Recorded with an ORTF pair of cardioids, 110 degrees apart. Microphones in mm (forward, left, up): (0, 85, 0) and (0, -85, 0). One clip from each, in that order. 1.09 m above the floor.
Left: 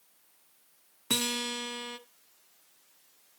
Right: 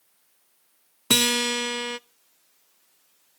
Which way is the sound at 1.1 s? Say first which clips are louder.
Right 10 dB; 45° right.